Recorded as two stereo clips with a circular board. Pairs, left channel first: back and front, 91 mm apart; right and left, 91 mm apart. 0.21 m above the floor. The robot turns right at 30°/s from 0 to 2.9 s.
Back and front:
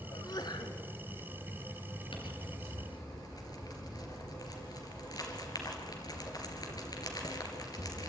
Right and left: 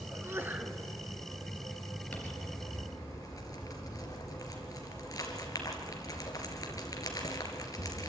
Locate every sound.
0.1 s a sneeze: 140° left, 2 m; by 0.8 s 165° left, 2 m
2.1 s crumpling: 165° right, 3 m; by 8.1 s 140° right, 3 m